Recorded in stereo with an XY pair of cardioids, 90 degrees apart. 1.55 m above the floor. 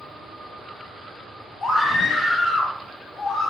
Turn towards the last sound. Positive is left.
turn(degrees=50)